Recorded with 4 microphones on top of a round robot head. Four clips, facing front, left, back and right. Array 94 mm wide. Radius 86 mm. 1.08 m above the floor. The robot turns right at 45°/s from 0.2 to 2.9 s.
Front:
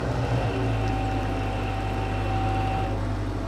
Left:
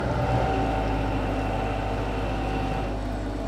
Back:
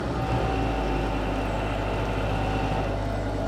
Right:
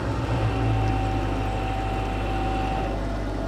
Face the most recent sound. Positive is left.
turn(degrees=-165)